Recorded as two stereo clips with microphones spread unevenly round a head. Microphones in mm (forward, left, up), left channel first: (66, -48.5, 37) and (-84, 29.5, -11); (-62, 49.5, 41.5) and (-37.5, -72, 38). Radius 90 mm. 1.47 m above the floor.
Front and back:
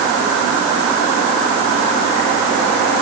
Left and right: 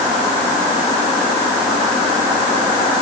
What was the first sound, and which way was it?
Only background noise.